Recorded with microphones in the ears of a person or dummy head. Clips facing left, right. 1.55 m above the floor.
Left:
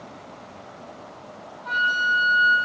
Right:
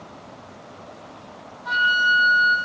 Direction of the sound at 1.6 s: 10° right (ahead or behind).